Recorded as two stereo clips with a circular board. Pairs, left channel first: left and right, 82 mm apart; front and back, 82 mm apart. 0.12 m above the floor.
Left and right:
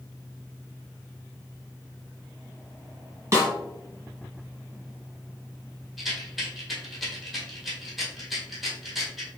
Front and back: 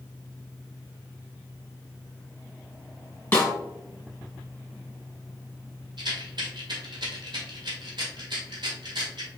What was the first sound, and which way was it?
A snare drum, 60° right.